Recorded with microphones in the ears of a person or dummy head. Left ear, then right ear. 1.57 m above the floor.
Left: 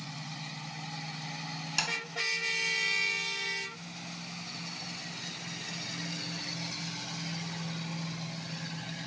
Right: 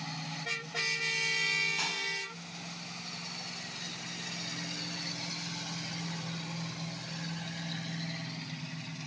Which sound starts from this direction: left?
Tapping, at 1.8 s.